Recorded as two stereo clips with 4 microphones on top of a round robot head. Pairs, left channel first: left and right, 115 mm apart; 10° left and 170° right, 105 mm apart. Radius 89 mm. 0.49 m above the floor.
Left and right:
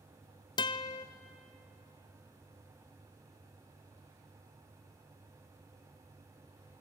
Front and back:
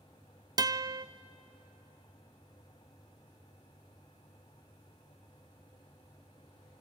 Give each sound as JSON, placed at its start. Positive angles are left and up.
{"t": 0.6, "sound": "a guitar", "azimuth_deg": 140, "distance_m": 0.9}